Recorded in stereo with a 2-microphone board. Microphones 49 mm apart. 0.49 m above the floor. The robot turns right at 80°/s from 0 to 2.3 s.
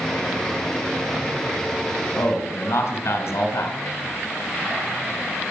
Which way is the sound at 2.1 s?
70° left (ahead or behind).